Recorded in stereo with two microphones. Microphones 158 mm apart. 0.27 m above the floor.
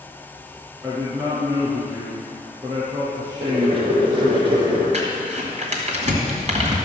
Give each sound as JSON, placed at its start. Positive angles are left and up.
{"t": 0.8, "sound": "a man speaking", "side_deg": -10, "distance_m": 3.5}
{"t": 3.4, "sound": "boiling", "side_deg": -35, "distance_m": 4.0}
{"t": 4.9, "sound": "crumpling", "side_deg": -45, "distance_m": 2.0}